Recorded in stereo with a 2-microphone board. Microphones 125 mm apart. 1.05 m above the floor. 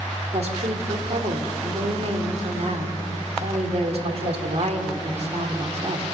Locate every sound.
0.3 s a woman speaking: 55° right (ahead or behind), 2.5 m